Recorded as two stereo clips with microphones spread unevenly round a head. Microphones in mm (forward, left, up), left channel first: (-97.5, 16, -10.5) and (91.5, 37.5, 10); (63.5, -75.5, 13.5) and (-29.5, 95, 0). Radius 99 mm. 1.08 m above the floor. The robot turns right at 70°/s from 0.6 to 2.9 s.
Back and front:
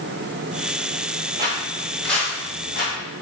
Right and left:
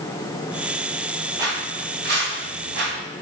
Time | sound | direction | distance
1.4 | footsteps | 50° left | 1.3 m